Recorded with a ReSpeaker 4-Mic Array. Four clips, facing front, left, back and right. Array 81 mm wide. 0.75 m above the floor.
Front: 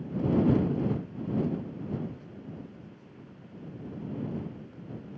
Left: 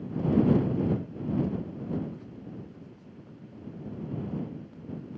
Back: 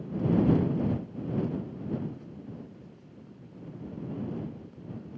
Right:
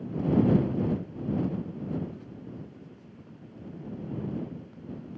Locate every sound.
Only background noise.